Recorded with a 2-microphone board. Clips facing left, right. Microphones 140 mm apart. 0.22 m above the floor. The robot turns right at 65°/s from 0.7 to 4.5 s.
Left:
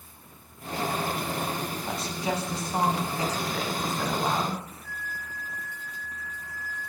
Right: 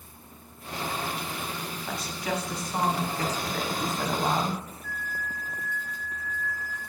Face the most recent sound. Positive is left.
turn(degrees=30)  # may be behind; listen again after turning